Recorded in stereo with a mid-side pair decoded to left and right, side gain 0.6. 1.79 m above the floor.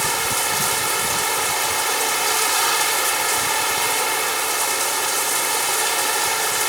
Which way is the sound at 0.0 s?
10° right.